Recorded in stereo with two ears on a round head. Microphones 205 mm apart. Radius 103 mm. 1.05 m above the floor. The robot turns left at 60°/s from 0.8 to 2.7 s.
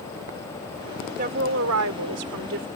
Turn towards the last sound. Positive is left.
turn(degrees=-125)